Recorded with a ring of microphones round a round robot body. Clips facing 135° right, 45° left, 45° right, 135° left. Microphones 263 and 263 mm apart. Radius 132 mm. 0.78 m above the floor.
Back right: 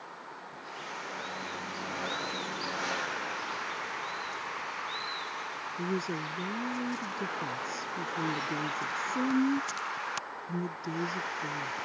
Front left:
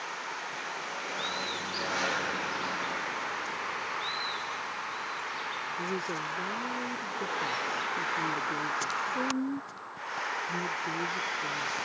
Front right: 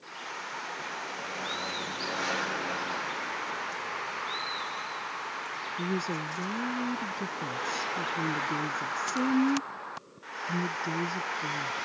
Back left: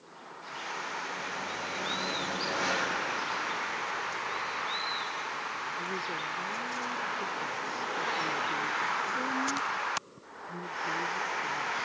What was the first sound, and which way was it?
A woman speaking, 75° right.